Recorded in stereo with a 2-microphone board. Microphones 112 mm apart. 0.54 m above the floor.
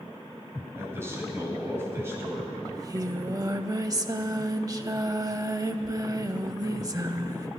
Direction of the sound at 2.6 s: 35° right (ahead or behind).